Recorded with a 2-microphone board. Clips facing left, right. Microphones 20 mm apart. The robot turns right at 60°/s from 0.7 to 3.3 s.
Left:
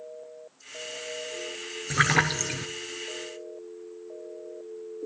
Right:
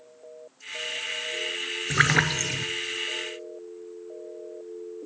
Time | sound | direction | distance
1.9 | a splash | 25° right | 0.8 m